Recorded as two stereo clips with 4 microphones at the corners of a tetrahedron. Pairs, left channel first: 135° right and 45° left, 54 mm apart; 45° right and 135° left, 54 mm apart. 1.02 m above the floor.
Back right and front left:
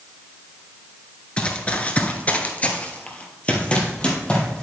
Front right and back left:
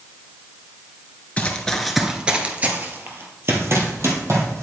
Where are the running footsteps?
85° right, 1.1 m; by 4.6 s 155° left, 2.5 m.